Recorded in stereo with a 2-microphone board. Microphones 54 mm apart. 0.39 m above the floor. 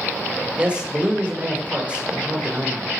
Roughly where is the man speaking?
Right.